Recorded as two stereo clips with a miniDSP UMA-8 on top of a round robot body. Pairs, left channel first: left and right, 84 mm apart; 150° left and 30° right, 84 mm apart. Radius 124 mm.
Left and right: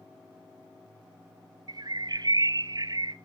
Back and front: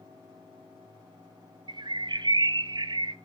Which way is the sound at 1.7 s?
55° right.